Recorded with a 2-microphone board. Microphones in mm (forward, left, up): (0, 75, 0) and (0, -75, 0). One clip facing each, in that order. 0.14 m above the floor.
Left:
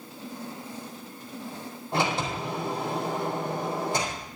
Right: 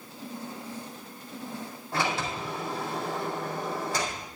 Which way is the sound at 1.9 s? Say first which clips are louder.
Left 3 dB; 20° left (ahead or behind).